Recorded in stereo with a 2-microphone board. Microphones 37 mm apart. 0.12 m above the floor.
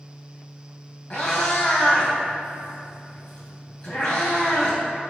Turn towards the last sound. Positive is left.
turn(degrees=15)  # may be behind; listen again after turning